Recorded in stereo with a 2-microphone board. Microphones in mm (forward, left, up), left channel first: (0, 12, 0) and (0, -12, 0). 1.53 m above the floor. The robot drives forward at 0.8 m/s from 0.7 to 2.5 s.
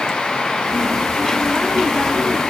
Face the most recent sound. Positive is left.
No sound to turn to.